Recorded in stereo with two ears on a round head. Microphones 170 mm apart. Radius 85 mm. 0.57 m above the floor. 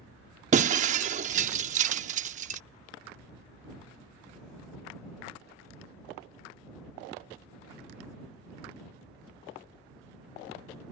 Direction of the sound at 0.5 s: 40° right (ahead or behind).